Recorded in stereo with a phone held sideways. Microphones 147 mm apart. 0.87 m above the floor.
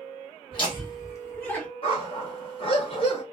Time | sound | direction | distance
0.5 | laughter | 40° left (ahead or behind) | 1.4 m
1.8 | a dog barking | 40° left (ahead or behind) | 0.9 m